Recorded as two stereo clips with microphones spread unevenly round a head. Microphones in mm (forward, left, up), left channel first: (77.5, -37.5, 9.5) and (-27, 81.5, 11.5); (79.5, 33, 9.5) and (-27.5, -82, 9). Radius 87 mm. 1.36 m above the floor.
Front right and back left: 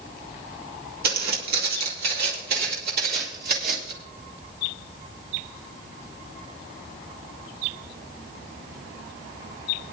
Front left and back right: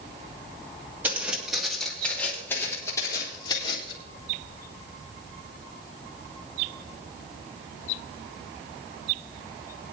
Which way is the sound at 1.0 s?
150° left.